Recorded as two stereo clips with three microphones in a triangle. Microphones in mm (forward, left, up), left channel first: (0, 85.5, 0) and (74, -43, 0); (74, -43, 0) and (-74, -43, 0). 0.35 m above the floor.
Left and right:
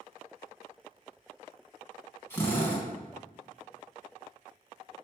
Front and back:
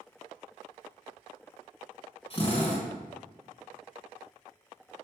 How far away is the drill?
About 3.5 m.